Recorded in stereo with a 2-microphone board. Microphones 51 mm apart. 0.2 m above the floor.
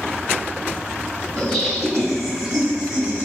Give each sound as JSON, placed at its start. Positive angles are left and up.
{"t": 1.4, "sound": "laughter", "side_deg": 20, "distance_m": 1.1}